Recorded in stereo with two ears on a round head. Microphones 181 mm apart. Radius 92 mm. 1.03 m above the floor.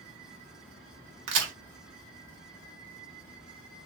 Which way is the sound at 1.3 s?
75° right (ahead or behind).